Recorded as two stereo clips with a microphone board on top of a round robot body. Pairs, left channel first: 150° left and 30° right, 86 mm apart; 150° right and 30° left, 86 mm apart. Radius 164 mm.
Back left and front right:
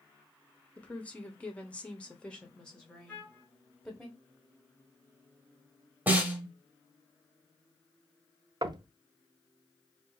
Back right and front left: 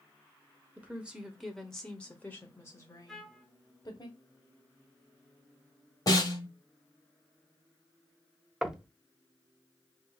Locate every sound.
0.8 s a woman speaking: 90° left, 1.2 m; by 4.1 s 125° right, 1.6 m
3.1 s a trumpet: 125° left, 1.4 m
6.1 s a snare drum: 100° right, 1.2 m
8.6 s knocking: 55° right, 0.7 m